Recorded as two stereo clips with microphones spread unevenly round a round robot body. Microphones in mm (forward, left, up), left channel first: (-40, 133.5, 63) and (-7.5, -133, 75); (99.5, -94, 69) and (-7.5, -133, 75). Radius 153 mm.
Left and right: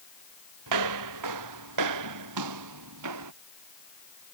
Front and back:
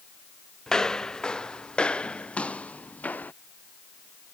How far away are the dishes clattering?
No dishes clattering in this recording.